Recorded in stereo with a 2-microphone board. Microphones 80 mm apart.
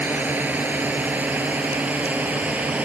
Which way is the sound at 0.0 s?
20° right (ahead or behind).